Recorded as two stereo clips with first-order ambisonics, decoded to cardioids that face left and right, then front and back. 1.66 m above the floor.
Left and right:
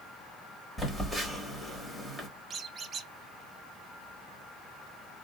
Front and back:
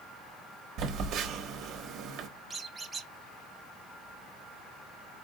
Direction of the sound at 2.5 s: 115° right.